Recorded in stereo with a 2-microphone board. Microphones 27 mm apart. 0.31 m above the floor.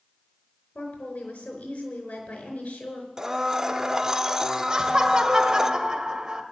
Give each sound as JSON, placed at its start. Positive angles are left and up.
{"t": 0.8, "sound": "a woman speaking", "side_deg": 65, "distance_m": 4.5}
{"t": 3.2, "sound": "a blender", "side_deg": -20, "distance_m": 0.9}
{"t": 4.7, "sound": "laughter", "side_deg": -25, "distance_m": 1.6}